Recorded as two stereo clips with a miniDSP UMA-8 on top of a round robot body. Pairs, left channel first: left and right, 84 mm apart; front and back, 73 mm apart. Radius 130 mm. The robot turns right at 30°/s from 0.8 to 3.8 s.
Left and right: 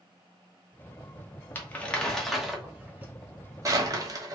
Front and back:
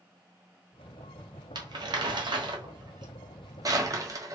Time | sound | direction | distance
1.6 | crumpling | 155° left | 1.1 m